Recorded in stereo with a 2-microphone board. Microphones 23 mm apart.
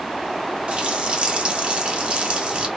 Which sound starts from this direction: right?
A running tap, at 0.7 s.